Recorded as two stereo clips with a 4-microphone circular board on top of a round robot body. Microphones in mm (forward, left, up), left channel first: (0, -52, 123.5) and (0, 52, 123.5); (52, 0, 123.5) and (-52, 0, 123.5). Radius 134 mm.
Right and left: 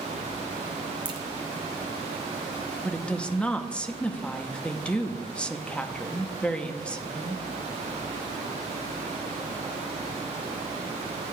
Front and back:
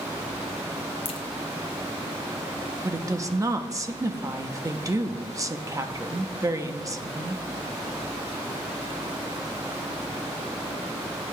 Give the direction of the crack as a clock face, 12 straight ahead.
11 o'clock.